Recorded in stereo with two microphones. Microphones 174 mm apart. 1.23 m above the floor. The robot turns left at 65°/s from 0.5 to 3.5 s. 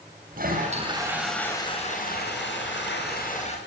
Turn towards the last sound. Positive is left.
turn(degrees=35)